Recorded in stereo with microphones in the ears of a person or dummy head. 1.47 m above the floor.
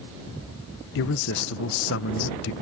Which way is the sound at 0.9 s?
60° left (ahead or behind).